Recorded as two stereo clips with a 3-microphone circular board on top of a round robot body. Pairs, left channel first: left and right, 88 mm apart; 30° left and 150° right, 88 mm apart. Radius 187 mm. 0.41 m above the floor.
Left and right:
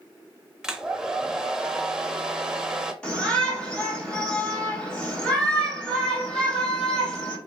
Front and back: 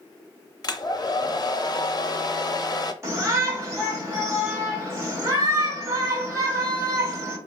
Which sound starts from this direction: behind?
A shout, at 3.0 s.